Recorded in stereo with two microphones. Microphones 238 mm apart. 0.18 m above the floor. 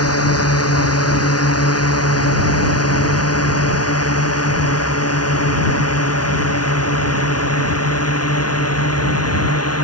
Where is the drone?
80° left; by 9.8 s 85° left.